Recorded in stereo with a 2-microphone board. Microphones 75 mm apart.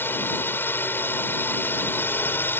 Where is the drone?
25° left (ahead or behind).